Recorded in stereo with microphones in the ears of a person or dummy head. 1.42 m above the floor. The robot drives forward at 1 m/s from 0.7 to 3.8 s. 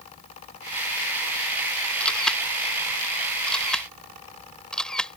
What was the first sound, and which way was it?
A camera shutter, 5° left (ahead or behind).